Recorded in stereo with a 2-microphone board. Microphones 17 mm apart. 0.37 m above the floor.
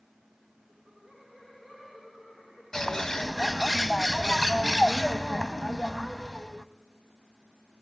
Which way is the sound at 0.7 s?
60° left (ahead or behind).